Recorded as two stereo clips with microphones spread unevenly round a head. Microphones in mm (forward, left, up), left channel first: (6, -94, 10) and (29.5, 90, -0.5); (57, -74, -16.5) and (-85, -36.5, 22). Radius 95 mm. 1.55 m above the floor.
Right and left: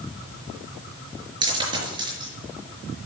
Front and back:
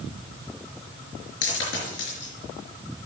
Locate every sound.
1.4 s a dropped coin: 15° left, 4.5 m